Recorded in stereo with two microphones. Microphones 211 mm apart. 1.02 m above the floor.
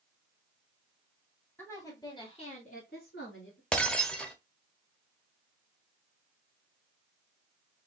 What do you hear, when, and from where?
1.6 s a woman speaking: 10° left (ahead or behind), 2.5 m; by 3.6 s 75° left (ahead or behind), 1.6 m
3.7 s breaking glass: 5° left (ahead or behind), 0.8 m